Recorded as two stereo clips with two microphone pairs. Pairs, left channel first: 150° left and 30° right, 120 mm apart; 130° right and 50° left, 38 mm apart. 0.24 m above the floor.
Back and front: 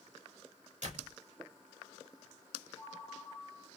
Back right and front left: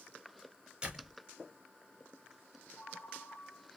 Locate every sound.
0.8 s a door slam: 20° right, 3 m
2.8 s a ringtone: 150° right, 2.0 m